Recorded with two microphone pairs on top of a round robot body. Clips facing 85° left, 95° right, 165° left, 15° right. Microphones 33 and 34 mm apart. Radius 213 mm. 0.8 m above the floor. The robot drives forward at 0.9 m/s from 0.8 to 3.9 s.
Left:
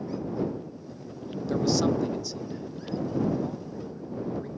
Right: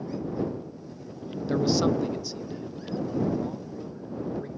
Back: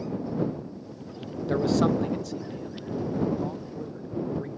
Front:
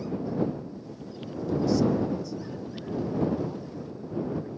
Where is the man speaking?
170° right, 0.6 m; by 4.6 s straight behind, 2.5 m.